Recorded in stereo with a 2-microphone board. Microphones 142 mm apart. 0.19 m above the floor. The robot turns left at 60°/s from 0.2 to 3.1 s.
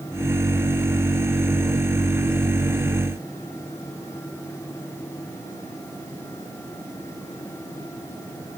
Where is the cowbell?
No cowbell in this recording.